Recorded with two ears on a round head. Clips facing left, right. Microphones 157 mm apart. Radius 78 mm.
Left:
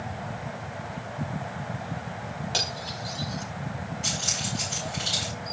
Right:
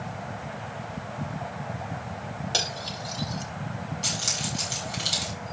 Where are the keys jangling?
50° right (ahead or behind), 7 m.